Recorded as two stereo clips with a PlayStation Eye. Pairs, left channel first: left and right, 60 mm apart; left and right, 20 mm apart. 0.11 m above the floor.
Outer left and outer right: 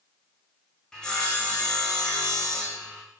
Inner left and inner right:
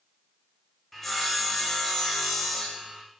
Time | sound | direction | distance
0.9 | sawing | 10° left (ahead or behind) | 4 m